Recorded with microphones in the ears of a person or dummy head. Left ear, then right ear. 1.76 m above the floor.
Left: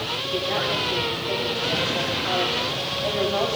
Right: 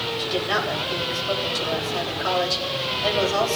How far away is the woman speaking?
About 8.5 m.